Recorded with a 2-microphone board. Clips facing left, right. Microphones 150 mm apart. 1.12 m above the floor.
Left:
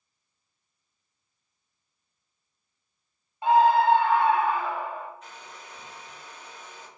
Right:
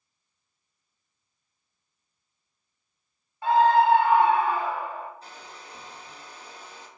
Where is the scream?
20° left (ahead or behind), 0.5 m; by 5.1 s 40° right (ahead or behind), 0.9 m.